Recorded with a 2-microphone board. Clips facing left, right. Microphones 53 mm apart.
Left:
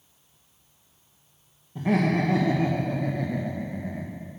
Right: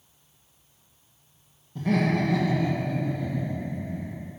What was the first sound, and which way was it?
Laughter, 15° left (ahead or behind).